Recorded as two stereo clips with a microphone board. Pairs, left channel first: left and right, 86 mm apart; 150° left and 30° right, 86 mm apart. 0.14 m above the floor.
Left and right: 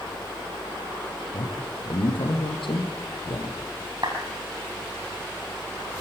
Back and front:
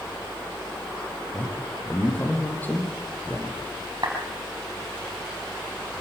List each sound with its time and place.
1.3 s a man speaking: 80° left, 4 m
4.0 s a clap: 65° right, 4.5 m